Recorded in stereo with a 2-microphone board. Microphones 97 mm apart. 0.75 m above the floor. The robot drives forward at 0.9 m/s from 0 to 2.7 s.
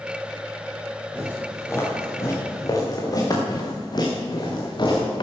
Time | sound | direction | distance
1.1 | footsteps | 20° left (ahead or behind) | 6.5 m